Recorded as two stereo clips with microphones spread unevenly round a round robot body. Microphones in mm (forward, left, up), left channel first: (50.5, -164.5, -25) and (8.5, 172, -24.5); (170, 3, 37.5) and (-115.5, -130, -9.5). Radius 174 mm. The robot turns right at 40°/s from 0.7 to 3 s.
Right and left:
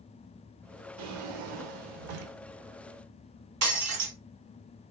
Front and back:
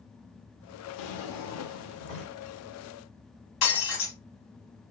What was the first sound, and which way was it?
A drawer, 50° left.